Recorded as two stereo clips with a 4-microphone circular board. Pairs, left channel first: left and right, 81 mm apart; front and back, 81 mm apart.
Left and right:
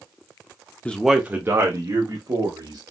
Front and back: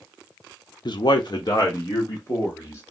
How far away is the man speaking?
About 0.6 m.